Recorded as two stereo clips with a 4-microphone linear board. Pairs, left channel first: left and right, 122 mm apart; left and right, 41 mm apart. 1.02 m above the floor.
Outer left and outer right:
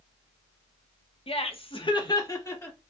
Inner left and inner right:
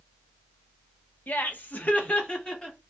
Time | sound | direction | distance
1.3 | laughter | 50° left (ahead or behind) | 0.7 m